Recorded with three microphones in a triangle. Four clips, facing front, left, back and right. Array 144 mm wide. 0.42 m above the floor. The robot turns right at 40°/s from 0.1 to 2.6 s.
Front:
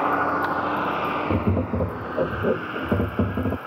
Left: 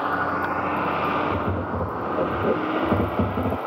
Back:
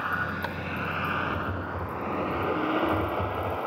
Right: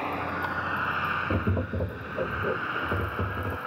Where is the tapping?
5° right; by 3.6 s 45° left.